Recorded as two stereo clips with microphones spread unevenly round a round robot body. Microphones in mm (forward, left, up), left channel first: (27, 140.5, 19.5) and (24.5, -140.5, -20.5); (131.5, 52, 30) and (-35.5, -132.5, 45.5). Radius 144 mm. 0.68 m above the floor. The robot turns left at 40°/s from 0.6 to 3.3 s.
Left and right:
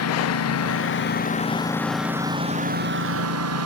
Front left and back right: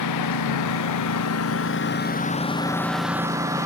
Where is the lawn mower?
55° left; by 3.6 s 55° right.